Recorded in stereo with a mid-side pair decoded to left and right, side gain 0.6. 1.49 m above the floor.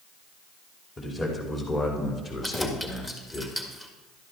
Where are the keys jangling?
15° left, 2.0 m.